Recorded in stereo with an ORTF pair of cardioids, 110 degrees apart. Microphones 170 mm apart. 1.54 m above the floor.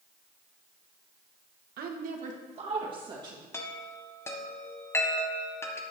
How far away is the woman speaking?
About 1.3 m.